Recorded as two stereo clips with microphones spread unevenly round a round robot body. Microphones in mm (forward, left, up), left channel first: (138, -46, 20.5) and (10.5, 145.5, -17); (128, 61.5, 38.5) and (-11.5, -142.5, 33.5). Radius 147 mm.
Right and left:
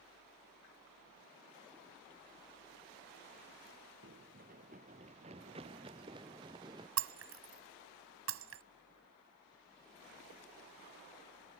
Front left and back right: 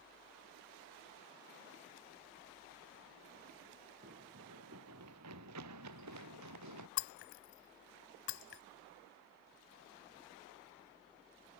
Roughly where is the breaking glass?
Left.